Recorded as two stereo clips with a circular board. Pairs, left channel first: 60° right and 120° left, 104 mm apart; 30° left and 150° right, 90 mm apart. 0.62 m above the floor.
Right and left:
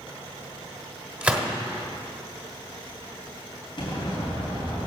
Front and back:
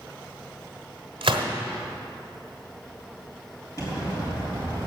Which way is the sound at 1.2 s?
165° right.